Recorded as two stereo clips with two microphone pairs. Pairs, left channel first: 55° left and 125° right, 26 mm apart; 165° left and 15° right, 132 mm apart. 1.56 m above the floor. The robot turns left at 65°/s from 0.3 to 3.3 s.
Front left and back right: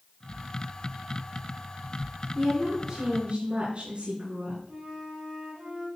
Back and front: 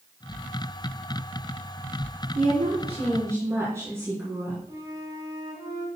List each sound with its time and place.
2.4 s a woman speaking: 25° right, 4 m; by 4.6 s 85° right, 4 m
4.7 s a flute: 75° right, 2 m